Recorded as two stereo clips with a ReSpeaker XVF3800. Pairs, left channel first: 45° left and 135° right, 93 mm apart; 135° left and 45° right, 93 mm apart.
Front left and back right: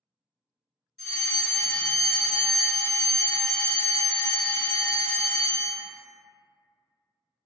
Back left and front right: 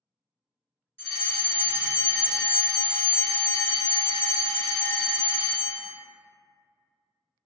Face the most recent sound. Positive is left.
turn(degrees=-45)